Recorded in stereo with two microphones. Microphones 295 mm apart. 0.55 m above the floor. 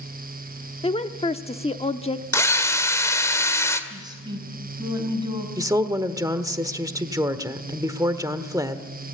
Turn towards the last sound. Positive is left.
turn(degrees=-10)  # may be behind; listen again after turning